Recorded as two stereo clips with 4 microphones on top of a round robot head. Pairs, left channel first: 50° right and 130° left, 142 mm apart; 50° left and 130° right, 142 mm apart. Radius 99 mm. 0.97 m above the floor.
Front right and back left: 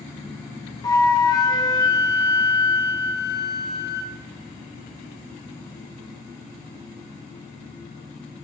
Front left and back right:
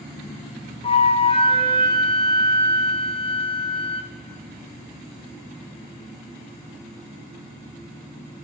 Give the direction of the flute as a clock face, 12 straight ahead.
12 o'clock.